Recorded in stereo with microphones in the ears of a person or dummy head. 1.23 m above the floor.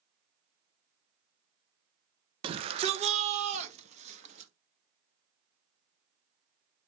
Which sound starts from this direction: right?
A shout, at 2.4 s.